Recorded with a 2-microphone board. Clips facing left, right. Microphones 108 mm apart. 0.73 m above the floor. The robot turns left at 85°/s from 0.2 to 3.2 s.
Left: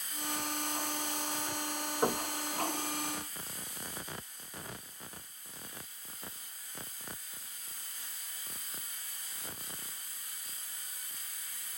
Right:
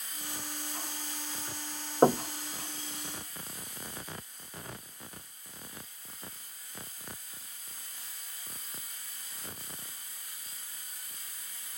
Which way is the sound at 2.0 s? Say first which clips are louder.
Right 9 dB; 40° right (ahead or behind).